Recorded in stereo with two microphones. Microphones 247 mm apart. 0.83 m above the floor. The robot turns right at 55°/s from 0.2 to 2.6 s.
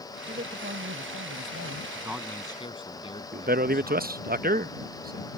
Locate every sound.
0.3 s a man speaking: 150° right; by 1.9 s 65° right
1.9 s a man speaking: 15° right; by 4.2 s 20° left
3.3 s a man speaking: 40° right (ahead or behind)